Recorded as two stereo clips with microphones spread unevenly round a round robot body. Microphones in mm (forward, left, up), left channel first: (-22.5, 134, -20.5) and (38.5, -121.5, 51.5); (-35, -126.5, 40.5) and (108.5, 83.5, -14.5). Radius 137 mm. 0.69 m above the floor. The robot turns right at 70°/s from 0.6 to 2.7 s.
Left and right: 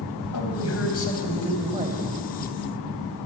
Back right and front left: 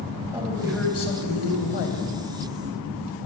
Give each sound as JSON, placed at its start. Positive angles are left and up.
{"t": 0.3, "sound": "a man speaking", "azimuth_deg": 135, "distance_m": 3.5}